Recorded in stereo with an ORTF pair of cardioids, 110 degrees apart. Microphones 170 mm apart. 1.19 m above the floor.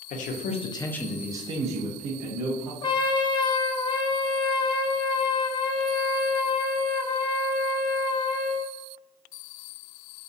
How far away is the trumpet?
About 0.9 m.